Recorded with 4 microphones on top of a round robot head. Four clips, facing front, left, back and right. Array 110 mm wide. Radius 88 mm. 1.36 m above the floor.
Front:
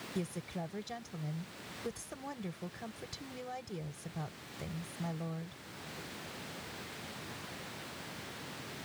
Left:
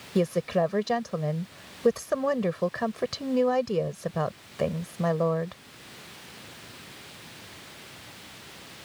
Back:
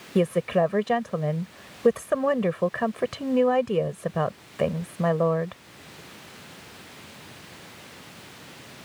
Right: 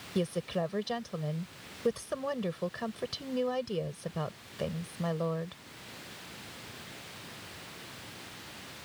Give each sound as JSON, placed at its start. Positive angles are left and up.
{"t": 0.1, "sound": "a woman speaking", "azimuth_deg": 160}